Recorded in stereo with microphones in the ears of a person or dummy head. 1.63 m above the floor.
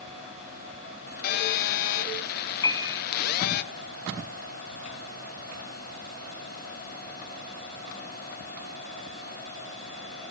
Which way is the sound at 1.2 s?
60° left (ahead or behind).